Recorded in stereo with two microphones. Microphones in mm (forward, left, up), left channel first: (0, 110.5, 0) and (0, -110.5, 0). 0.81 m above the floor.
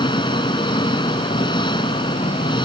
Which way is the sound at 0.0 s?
20° left (ahead or behind).